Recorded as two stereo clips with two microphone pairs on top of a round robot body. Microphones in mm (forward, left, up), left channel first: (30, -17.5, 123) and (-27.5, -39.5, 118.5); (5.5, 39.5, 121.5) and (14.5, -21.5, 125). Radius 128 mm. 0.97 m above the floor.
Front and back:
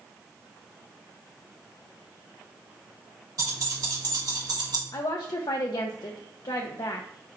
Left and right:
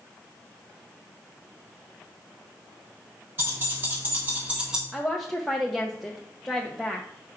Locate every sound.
3.4 s keys jangling: 135° right, 3.5 m; by 4.8 s 160° right, 1.5 m
4.9 s a woman speaking: 15° left, 0.6 m